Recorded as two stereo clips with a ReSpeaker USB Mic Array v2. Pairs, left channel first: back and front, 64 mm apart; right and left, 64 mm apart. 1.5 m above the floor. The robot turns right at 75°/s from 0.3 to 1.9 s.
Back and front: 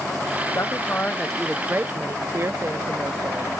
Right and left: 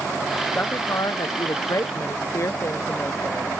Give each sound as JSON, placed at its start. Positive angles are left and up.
{"t": 0.6, "sound": "a woman speaking", "azimuth_deg": -150}